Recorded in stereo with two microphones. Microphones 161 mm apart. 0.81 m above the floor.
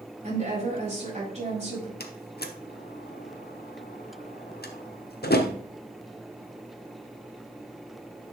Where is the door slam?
85° left, 1.0 m.